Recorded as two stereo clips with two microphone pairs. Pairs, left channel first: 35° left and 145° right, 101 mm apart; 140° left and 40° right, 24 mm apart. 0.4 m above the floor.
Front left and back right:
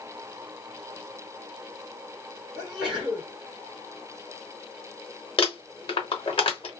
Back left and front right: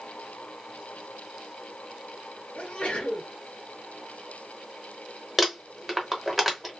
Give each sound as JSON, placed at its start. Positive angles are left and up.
{"t": 2.5, "sound": "a sneeze", "azimuth_deg": 130, "distance_m": 1.5}
{"t": 5.4, "sound": "crumpling", "azimuth_deg": 40, "distance_m": 1.0}